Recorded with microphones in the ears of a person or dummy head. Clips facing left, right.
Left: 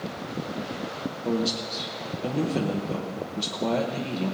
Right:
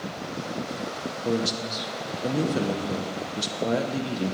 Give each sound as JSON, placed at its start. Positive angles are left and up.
{"t": 1.2, "sound": "a man speaking", "side_deg": -10, "distance_m": 0.9}